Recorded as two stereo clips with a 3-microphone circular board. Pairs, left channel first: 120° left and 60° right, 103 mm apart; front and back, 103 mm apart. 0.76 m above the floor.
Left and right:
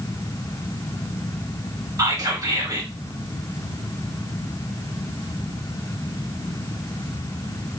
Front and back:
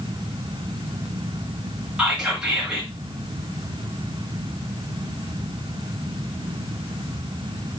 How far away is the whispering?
About 1.4 m.